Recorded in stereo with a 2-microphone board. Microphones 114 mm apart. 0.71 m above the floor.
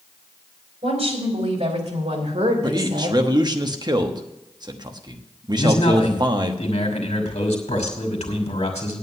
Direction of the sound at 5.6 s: 70° left (ahead or behind).